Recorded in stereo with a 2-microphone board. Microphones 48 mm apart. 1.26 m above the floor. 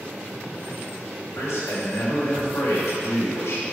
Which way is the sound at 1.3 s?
75° left (ahead or behind).